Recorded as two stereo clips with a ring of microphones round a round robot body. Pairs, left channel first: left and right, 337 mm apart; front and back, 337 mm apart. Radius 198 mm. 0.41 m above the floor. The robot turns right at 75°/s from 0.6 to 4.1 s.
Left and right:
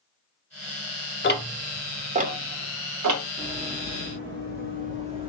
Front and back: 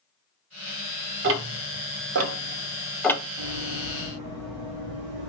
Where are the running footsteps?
170° left, 2 m; by 5.3 s 165° right, 1.9 m.